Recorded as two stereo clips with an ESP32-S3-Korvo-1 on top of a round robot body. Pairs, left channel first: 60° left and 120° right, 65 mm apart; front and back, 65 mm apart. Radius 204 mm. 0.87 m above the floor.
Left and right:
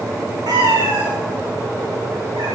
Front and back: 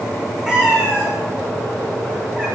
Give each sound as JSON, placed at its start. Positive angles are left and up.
{"t": 0.5, "sound": "a cat meowing", "azimuth_deg": -100, "distance_m": 7.0}